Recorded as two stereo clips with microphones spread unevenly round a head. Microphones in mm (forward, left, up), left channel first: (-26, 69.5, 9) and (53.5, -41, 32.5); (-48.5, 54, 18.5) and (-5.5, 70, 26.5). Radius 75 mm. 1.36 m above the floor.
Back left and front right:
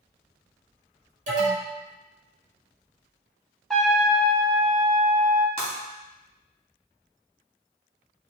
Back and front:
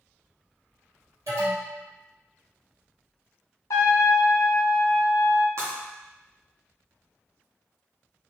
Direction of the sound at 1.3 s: 25° right.